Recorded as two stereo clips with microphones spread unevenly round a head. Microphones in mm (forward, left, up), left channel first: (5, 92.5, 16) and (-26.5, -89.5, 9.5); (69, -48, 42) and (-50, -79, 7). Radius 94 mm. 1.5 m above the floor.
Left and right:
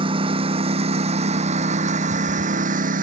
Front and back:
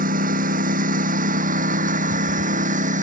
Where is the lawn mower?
165° right; by 3.0 s 150° right.